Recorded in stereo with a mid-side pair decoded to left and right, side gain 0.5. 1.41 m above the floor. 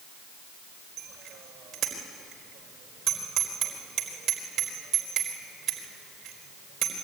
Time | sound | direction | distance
1.0 | a bicycle bell | 60° right | 4.5 m